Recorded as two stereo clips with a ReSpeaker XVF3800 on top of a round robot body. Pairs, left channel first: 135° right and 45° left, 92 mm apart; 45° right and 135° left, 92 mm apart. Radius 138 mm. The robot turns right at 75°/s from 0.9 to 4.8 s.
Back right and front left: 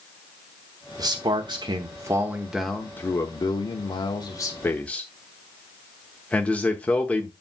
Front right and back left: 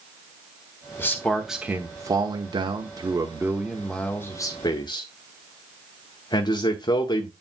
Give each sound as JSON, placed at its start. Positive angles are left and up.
{"t": 1.0, "sound": "a man speaking", "azimuth_deg": 15, "distance_m": 1.1}